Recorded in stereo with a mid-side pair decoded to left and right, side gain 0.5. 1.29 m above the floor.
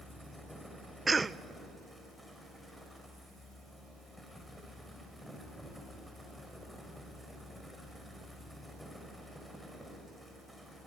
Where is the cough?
25° right, 0.7 m.